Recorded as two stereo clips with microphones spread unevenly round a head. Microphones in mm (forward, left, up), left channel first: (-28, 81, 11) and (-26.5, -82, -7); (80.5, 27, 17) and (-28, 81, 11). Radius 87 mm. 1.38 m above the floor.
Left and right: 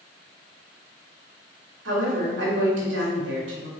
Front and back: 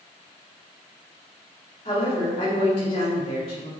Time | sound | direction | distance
1.9 | a woman speaking | 85° right | 2.5 m